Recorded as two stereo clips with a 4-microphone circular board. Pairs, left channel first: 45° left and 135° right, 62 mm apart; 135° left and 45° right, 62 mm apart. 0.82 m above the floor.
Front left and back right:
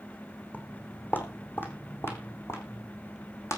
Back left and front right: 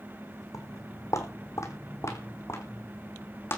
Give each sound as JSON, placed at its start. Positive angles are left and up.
{"t": 0.5, "sound": "footsteps", "azimuth_deg": 110, "distance_m": 3.0}